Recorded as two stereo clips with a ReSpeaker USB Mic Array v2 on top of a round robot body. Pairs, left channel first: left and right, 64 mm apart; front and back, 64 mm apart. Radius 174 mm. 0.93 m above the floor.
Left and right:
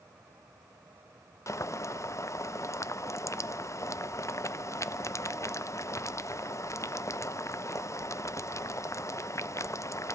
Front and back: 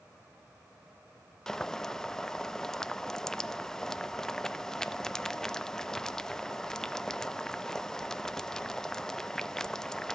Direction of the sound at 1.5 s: 80° left.